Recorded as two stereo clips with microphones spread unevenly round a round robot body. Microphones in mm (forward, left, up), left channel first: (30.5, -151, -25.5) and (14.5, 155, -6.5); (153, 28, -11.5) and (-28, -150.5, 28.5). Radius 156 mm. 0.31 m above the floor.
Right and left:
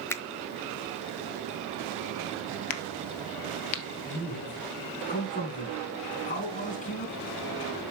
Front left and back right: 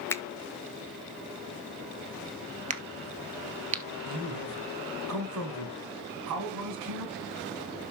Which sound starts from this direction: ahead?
A finger snap, at 0.1 s.